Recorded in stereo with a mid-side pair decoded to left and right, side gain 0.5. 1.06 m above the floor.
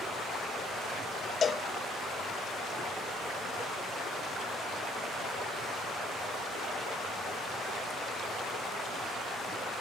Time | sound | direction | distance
1.4 | a cowbell | 40° left | 0.7 m